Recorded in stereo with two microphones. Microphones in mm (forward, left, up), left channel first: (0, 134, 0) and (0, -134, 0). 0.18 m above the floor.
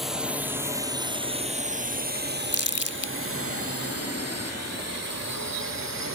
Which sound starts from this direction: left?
Crumpling, at 2.5 s.